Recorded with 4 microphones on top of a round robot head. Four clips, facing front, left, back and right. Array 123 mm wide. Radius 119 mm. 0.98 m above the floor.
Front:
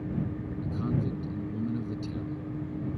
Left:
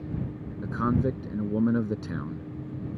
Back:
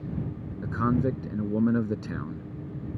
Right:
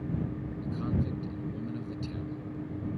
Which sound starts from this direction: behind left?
A man speaking, at 0.6 s.